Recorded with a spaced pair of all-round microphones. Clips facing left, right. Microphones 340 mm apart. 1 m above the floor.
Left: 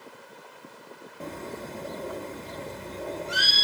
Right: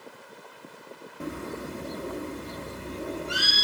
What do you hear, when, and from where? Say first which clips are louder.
1.2 s a bird: right 3 dB; 20° right (ahead or behind), 0.6 m